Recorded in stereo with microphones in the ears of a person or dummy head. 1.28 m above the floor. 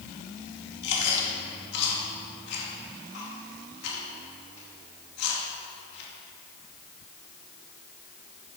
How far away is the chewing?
About 2.5 m.